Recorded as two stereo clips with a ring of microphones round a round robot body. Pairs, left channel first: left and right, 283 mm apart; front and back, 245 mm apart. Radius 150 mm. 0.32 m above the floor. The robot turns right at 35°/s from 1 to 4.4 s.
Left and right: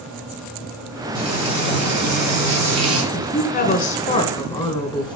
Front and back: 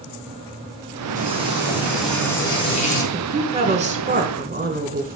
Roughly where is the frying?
Behind right.